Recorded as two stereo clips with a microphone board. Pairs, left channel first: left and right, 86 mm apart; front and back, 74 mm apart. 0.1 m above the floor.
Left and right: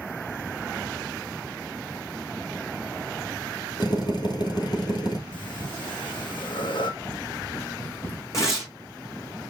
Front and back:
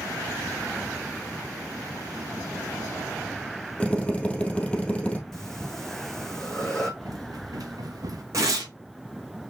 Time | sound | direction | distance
3.8 | a drill | 75° left | 2.0 m
5.3 | breathing | 85° left | 1.5 m
7.0 | running footsteps | 150° left | 3.5 m
8.3 | tearing paper | 140° left | 3 m